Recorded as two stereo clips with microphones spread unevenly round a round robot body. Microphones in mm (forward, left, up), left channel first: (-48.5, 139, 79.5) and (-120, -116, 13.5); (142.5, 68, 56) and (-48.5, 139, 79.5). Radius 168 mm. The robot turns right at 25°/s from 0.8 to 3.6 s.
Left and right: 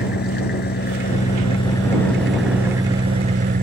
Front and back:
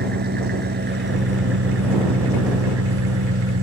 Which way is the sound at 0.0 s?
125° left.